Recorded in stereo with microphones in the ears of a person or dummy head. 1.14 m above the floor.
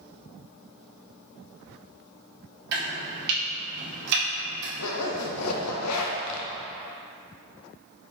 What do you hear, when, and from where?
2.7 s chopping: 65° right (ahead or behind), 1.6 m
4.8 s a zipper: 80° left, 0.6 m